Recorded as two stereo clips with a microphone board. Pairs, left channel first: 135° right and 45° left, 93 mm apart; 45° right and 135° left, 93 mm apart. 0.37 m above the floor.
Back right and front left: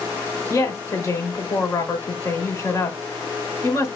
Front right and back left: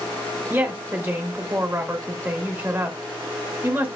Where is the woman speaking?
170° right, 1.0 m.